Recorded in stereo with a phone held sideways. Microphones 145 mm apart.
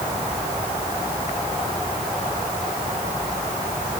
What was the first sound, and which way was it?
Only background noise.